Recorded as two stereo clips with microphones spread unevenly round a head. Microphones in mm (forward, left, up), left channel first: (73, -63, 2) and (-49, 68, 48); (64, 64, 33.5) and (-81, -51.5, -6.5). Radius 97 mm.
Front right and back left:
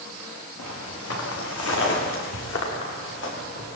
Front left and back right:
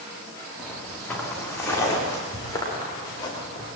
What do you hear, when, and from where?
0.6 s footsteps: 50° right, 5.5 m; by 3.7 s 30° right, 9 m